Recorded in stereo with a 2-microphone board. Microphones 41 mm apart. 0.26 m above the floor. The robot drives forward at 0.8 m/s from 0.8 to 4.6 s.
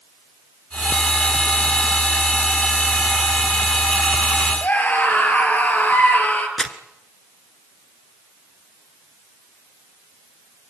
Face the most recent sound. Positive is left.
turn(degrees=5)  # may be behind; listen again after turning